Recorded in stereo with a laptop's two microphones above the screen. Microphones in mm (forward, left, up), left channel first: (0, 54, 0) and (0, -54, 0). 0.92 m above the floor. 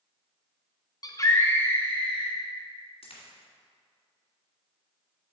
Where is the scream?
35° left (ahead or behind), 0.9 m; by 2.4 s 10° left (ahead or behind), 2.5 m.